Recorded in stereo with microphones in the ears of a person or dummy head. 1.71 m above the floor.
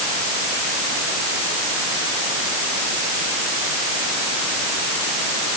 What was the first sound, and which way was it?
Only background noise.